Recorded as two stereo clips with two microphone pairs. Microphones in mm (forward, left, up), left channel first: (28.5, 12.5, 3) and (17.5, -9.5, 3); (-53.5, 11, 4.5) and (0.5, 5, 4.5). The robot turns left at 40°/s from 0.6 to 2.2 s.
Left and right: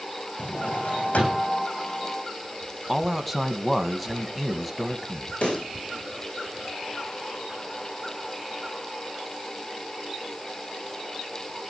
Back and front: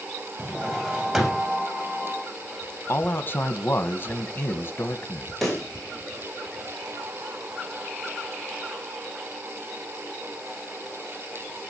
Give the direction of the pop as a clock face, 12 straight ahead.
9 o'clock.